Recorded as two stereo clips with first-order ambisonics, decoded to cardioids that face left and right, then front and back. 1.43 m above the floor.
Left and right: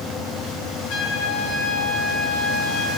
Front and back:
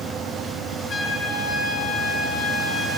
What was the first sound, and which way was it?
A trumpet, 65° left.